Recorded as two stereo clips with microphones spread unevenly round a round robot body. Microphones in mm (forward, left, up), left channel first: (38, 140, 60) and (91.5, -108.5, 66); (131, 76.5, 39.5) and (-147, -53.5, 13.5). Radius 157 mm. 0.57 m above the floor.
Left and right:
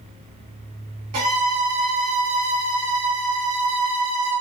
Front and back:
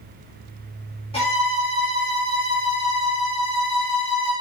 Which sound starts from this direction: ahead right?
A violin, at 1.1 s.